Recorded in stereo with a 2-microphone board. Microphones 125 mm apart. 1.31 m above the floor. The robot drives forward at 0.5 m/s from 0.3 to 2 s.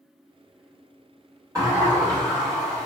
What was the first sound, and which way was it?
A sliding door, 25° right (ahead or behind).